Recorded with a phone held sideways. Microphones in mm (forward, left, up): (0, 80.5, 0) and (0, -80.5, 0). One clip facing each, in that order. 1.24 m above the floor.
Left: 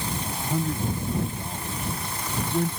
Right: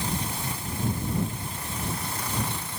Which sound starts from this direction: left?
A man speaking, at 0.2 s.